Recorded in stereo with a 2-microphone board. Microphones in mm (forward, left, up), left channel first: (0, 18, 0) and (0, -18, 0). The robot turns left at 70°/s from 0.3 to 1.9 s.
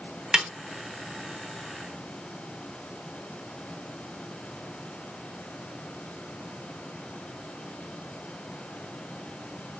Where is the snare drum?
20° right (ahead or behind), 1.0 m.